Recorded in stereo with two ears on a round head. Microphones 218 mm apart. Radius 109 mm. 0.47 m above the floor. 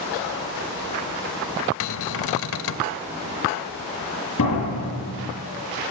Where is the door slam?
60° left (ahead or behind), 7.5 m.